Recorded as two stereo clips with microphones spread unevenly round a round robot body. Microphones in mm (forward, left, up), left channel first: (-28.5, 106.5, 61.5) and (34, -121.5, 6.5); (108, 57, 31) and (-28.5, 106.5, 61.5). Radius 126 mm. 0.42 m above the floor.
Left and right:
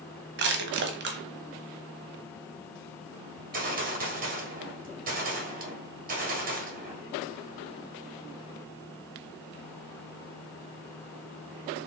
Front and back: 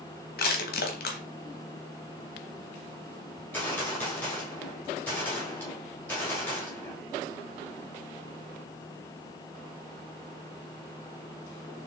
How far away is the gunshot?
About 1.5 m.